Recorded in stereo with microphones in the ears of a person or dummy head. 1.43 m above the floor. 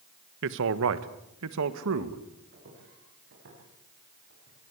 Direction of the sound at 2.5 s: 55° right (ahead or behind).